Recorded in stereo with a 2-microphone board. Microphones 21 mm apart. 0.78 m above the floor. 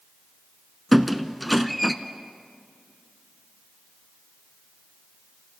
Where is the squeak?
5° left (ahead or behind), 0.7 m.